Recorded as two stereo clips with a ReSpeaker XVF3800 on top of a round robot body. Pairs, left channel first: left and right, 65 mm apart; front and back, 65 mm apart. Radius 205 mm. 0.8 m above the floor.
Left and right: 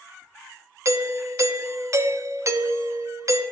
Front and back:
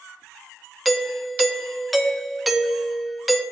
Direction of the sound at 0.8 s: 90° right.